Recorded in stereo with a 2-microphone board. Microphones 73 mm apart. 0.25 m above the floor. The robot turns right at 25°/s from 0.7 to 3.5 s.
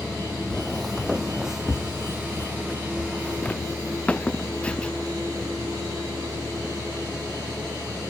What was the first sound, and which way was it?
Footsteps, 10° left (ahead or behind).